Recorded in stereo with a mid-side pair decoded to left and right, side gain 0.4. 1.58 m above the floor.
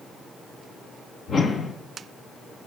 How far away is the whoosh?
About 1.9 m.